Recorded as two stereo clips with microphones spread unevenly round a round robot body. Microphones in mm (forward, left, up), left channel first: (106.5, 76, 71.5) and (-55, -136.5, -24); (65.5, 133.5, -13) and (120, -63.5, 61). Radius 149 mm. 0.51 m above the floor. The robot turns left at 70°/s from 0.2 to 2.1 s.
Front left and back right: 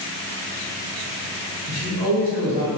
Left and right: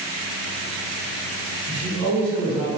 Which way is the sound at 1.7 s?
35° right.